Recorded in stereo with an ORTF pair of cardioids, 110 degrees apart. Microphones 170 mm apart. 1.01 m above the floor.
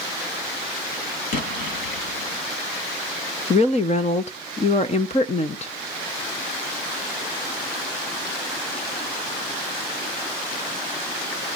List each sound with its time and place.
1.3 s an explosion: 70° left, 3.5 m
3.5 s a woman speaking: 45° left, 0.8 m